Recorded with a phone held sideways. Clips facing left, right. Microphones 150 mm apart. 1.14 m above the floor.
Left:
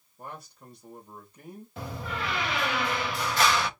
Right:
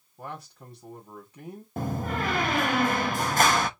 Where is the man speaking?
75° right (ahead or behind), 2.5 m.